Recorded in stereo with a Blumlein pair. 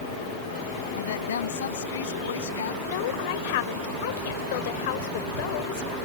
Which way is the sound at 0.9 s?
60° left.